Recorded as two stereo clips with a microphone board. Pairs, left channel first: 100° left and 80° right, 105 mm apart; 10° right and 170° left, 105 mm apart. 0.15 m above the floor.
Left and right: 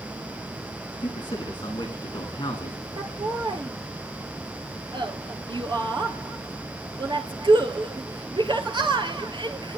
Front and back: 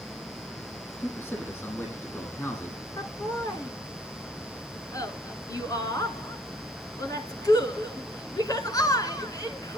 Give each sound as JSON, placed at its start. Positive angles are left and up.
{"t": 1.0, "sound": "a man speaking", "azimuth_deg": 55, "distance_m": 8.0}
{"t": 3.0, "sound": "laughter", "azimuth_deg": -55, "distance_m": 2.0}